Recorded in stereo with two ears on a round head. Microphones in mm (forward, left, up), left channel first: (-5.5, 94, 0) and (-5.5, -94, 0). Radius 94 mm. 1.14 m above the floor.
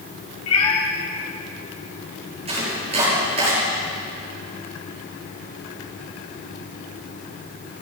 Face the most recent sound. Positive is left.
turn(degrees=-30)  # may be behind; listen again after turning